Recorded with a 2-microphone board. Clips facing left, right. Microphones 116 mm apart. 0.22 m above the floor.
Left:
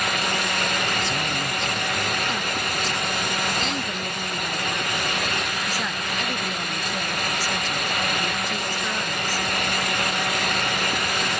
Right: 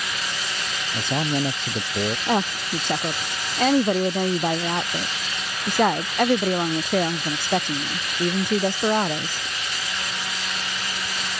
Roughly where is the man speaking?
Right.